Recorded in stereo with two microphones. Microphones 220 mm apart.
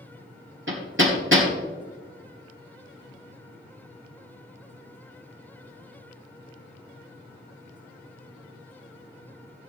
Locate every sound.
0.7 s hammering: 65° right (ahead or behind), 3 m